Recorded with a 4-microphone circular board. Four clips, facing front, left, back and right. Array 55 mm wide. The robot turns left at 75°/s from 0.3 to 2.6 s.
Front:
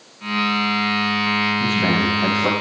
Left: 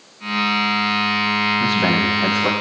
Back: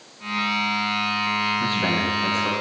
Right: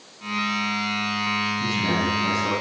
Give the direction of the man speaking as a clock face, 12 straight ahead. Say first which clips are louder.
Left 6 dB, front 4 dB; 8 o'clock.